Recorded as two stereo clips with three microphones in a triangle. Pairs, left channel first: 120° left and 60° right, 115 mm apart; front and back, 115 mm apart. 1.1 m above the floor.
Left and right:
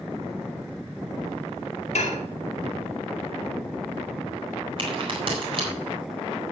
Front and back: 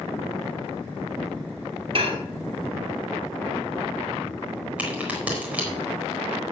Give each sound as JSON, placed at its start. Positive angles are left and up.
{"t": 1.9, "sound": "dishes clattering", "azimuth_deg": 140, "distance_m": 1.8}
{"t": 4.8, "sound": "a crack", "azimuth_deg": -105, "distance_m": 4.0}